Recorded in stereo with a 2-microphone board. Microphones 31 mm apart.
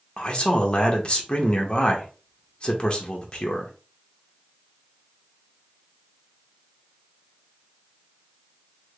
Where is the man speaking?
35° left (ahead or behind), 0.8 m.